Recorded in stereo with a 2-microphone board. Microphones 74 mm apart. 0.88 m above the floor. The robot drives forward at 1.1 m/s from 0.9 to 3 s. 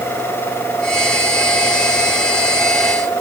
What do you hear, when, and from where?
Only background noise.